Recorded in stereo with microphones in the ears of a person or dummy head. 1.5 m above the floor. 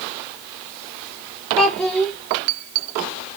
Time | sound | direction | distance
1.6 | a child speaking | 5° left (ahead or behind) | 2 m